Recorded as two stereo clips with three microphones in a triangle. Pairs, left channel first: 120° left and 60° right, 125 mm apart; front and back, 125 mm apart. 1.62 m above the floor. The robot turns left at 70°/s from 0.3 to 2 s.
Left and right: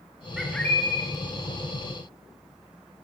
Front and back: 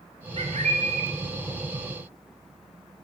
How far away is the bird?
About 0.8 m.